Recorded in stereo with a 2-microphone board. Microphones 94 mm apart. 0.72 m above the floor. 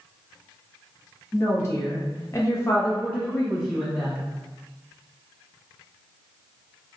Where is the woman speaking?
30° left (ahead or behind), 0.9 m; by 4.2 s 5° left (ahead or behind), 1.0 m.